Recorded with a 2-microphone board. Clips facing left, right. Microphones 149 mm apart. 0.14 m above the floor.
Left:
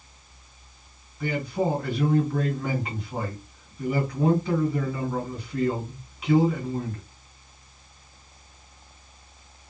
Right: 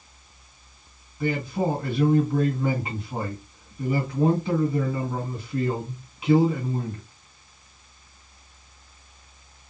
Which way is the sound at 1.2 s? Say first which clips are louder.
Right 1 dB; 25° right (ahead or behind).